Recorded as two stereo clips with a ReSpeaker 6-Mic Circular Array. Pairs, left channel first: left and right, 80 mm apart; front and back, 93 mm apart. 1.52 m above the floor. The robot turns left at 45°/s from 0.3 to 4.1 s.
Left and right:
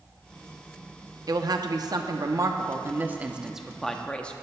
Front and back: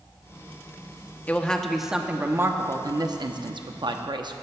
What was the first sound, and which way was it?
A woman speaking, 70° right.